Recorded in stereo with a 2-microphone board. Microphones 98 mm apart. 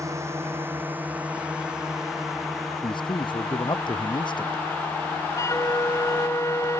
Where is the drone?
30° right (ahead or behind); by 6.8 s 20° left (ahead or behind).